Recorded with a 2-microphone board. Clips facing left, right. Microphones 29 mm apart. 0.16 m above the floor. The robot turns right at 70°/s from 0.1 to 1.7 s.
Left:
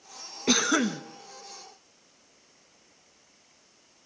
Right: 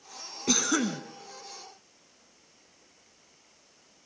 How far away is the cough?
About 1.1 m.